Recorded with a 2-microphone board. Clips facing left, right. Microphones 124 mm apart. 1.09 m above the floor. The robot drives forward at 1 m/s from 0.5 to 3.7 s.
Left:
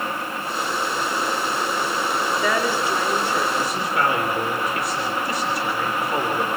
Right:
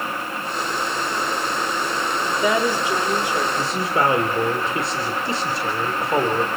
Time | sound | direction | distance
2.2 | a woman speaking | 20° right (ahead or behind) | 2 m
3.6 | a man speaking | 30° right (ahead or behind) | 3 m